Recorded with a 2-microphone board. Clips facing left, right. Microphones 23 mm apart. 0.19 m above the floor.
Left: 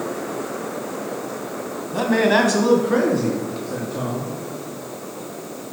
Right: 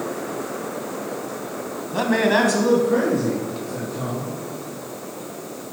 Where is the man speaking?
20° right (ahead or behind), 1.1 m; by 4.3 s 65° left (ahead or behind), 2.5 m.